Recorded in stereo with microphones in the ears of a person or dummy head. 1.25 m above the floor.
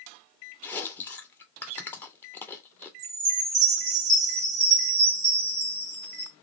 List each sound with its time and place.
0.6 s chewing: 15° left (ahead or behind), 0.8 m
3.0 s a chime: 15° right (ahead or behind), 0.9 m